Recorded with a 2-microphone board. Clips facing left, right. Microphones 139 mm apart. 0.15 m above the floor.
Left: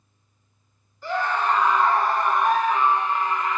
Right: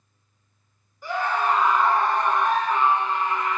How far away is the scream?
About 1.4 m.